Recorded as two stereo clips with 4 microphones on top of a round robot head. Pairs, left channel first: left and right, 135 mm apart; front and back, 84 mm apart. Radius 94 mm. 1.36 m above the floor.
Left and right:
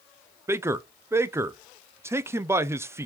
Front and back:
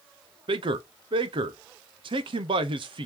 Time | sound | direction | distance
0.5 | a man speaking | 160° right | 0.6 m